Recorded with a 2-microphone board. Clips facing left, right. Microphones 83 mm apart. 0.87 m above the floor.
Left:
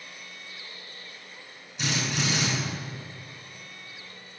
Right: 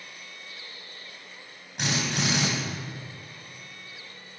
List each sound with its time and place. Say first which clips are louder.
1.8 s a drill: right 1 dB; 55° right (ahead or behind), 4.5 m